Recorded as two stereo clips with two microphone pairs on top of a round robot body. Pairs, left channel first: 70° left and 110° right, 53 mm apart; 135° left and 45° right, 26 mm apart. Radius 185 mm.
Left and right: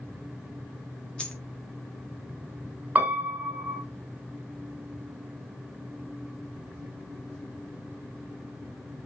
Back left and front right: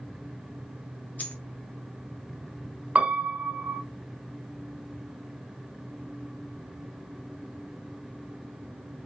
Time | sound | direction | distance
1.2 | a dropped coin | 140° left | 0.8 m
3.0 | a piano | 55° right | 1.2 m